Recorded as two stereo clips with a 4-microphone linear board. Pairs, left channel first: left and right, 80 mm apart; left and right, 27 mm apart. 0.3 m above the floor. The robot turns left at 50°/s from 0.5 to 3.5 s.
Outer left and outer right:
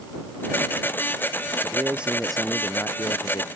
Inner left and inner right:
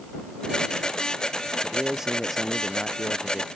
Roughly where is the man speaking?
Behind right.